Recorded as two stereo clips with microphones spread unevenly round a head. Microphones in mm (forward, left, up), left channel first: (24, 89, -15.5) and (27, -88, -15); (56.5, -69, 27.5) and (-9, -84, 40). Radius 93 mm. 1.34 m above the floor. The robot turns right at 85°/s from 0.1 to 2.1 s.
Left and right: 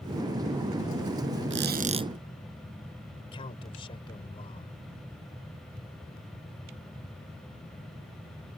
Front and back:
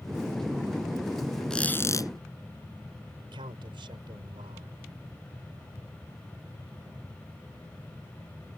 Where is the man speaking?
155° left.